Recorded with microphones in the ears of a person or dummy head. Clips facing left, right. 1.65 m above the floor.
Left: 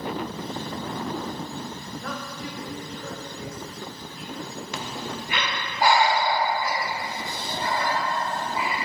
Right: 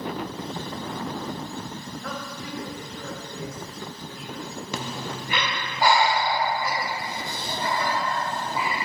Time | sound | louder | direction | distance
2.0 | a woman speaking | left 1 dB | 55° right (ahead or behind) | 1.7 m
4.7 | breathing | right 1 dB | 80° right | 0.7 m